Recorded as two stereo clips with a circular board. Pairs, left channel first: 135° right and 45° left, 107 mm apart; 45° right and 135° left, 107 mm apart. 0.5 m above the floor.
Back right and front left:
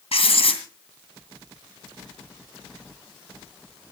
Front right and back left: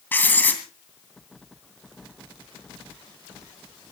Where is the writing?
115° right, 2.5 m.